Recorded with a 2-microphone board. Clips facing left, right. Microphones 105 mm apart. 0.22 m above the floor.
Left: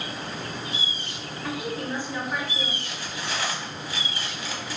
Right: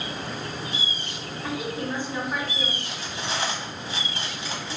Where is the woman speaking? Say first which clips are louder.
Right 1 dB; 20° right (ahead or behind), 1.9 m.